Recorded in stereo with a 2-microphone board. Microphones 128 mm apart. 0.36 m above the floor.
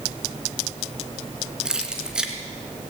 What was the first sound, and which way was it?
Keys jangling, 5° right (ahead or behind).